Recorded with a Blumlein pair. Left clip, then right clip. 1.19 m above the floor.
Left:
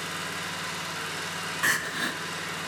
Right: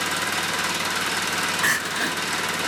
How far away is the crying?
About 0.5 m.